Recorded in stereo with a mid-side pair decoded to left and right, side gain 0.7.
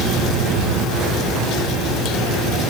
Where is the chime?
No chime in this recording.